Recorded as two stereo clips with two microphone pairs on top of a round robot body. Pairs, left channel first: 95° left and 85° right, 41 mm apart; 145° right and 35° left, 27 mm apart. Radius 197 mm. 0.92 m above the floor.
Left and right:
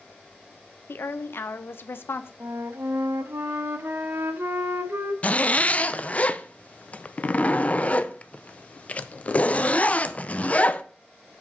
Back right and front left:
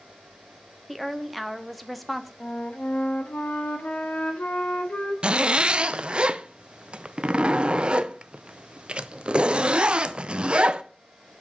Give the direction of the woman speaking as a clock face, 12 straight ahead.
8 o'clock.